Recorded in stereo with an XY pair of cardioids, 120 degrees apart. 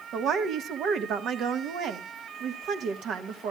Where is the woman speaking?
65° right, 1.5 m.